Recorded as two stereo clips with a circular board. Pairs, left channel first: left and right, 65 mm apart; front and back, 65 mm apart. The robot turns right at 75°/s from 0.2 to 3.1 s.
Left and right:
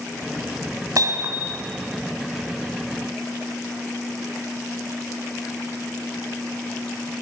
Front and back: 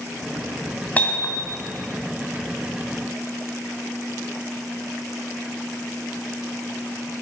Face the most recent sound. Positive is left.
turn(degrees=95)